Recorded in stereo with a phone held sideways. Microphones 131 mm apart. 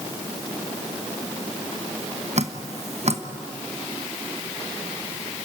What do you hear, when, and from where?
2.4 s dripping: 55° right (ahead or behind), 1.1 m